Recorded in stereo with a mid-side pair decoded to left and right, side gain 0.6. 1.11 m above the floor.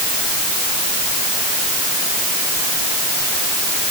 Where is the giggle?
No giggle in this recording.